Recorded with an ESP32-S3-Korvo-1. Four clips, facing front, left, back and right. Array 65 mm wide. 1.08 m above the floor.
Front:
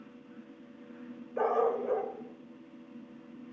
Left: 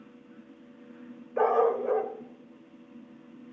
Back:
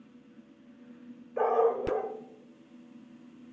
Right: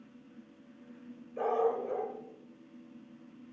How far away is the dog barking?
About 1.4 m.